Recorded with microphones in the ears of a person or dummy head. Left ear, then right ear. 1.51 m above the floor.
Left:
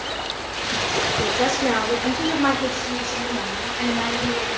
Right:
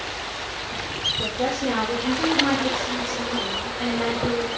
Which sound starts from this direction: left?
A woman speaking, at 1.2 s.